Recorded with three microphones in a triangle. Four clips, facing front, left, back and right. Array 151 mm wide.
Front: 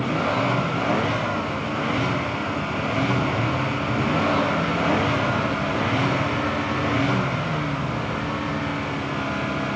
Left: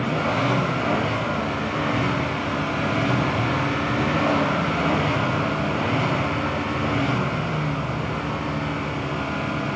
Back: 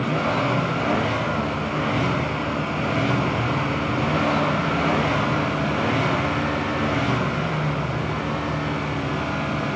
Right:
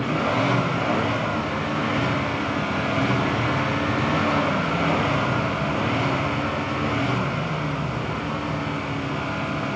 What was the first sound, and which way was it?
Only background noise.